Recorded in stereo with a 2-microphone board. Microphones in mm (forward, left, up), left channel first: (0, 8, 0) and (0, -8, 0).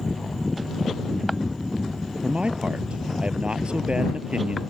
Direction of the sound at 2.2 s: 85° right.